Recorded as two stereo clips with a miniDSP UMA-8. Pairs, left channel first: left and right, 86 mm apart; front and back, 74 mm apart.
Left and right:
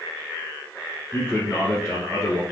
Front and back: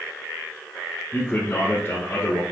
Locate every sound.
1.1 s a man speaking: 30° left, 1.2 m